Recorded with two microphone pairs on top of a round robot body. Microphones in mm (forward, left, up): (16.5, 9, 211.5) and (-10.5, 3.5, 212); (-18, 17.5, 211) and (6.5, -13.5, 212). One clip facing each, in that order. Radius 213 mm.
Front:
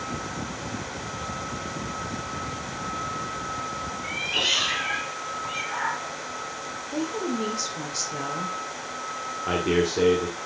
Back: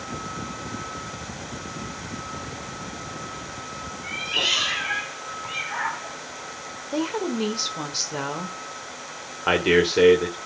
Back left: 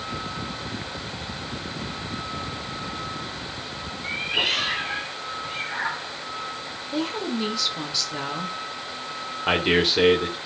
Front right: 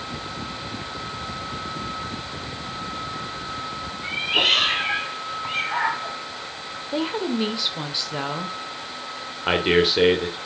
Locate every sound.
4.0 s a cat meowing: 80° right, 3 m; by 6.2 s 95° right, 1.8 m
6.9 s a woman speaking: 120° right, 1.7 m
9.5 s a man speaking: 135° right, 2.5 m